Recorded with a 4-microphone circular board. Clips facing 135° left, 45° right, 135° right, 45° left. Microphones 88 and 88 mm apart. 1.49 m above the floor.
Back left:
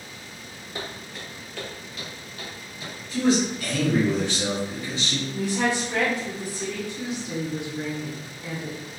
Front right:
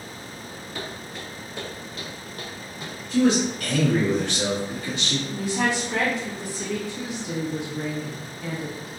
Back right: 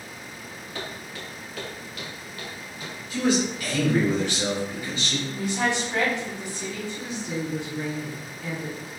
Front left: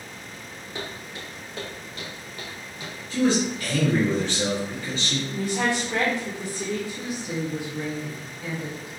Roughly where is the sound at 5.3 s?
Ahead left.